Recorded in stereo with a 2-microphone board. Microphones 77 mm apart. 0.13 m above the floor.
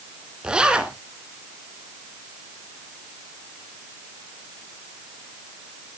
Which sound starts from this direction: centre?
A zipper, at 0.4 s.